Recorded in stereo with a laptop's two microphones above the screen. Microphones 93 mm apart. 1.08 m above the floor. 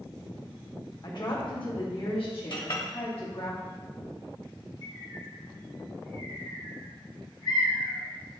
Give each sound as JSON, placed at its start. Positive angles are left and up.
{"t": 1.0, "sound": "a woman speaking", "side_deg": 50, "distance_m": 1.5}
{"t": 2.5, "sound": "a clink", "side_deg": 50, "distance_m": 1.4}
{"t": 4.8, "sound": "a bird", "side_deg": 60, "distance_m": 2.5}